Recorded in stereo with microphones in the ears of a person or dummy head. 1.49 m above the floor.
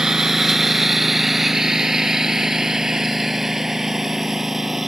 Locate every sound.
0.0 s a lawn mower: centre (ahead or behind)